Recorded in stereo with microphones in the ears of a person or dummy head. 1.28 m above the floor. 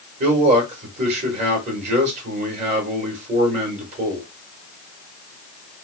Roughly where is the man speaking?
Right.